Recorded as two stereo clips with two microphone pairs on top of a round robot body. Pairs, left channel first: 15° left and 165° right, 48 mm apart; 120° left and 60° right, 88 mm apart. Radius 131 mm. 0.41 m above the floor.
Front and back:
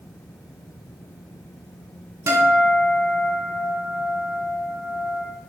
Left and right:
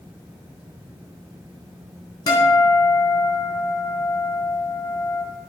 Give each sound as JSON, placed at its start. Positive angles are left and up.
{"t": 2.3, "sound": "a guitar", "azimuth_deg": 160, "distance_m": 3.5}